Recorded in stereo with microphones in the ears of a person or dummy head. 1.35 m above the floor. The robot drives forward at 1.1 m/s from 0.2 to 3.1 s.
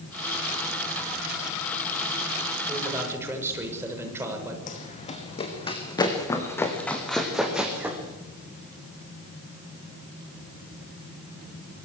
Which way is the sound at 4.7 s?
40° left (ahead or behind).